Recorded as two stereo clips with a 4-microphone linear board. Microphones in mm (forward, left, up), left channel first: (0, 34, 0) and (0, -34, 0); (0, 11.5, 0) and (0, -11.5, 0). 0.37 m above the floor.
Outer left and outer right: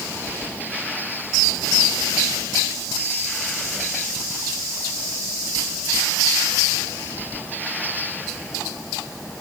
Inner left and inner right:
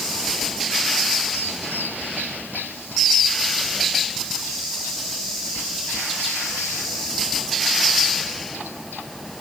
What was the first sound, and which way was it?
Only background noise.